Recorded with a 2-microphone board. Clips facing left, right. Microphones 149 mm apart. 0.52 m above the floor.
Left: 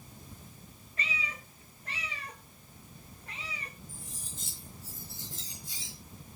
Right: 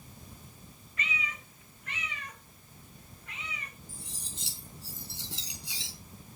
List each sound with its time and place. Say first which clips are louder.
1.0 s a cat meowing: right 1 dB; 35° left (ahead or behind), 1.7 m
3.9 s cutlery clinking: even; 85° right, 3.5 m